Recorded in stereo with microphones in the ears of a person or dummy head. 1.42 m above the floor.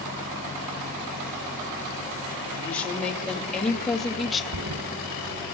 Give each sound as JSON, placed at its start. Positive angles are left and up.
{"t": 2.6, "sound": "a woman speaking", "side_deg": 10, "distance_m": 3.5}
{"t": 4.5, "sound": "a thud", "side_deg": -75, "distance_m": 3.5}